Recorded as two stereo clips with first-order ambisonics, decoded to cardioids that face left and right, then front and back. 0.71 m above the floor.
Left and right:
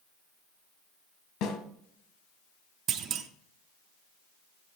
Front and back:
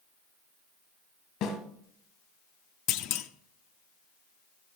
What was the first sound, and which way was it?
A snare drum, 50° left.